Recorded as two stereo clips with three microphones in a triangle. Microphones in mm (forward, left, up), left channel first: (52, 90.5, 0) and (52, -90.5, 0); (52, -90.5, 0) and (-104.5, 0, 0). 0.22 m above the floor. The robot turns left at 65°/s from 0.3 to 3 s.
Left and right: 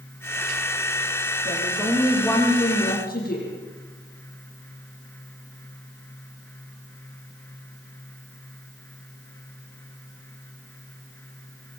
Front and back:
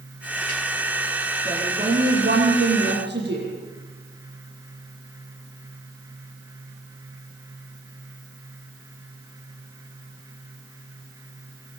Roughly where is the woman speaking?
Behind right.